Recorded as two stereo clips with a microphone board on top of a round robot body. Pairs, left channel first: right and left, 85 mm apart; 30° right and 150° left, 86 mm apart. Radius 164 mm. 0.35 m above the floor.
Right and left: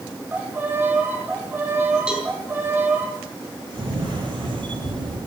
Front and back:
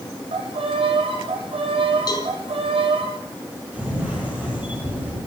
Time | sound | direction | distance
0.3 | a violin | 160° left | 3.5 m
2.1 | a cowbell | 10° left | 4 m
3.7 | a camera shutter | 75° left | 9 m